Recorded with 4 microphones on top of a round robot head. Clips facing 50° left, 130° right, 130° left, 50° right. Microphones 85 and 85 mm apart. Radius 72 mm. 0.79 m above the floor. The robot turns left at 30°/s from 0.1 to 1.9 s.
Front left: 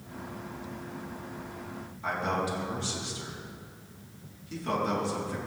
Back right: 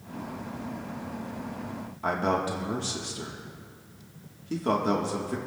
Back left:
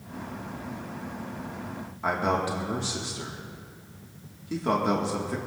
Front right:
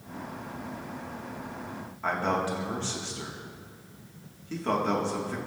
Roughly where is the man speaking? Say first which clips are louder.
Back right 4 dB, back left 2 dB; behind right.